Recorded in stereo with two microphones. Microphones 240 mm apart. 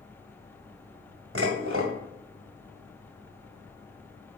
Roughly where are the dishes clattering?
Right.